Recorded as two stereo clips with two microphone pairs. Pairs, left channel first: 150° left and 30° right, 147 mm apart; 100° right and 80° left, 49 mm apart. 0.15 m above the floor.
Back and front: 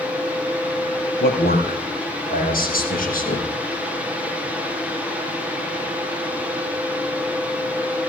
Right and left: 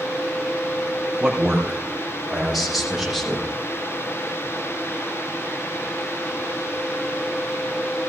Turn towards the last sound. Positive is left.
turn(degrees=170)